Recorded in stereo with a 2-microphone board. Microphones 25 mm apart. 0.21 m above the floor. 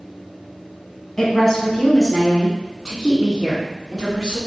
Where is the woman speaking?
15° left (ahead or behind), 1.6 m; by 4.4 s 20° right (ahead or behind), 2.5 m.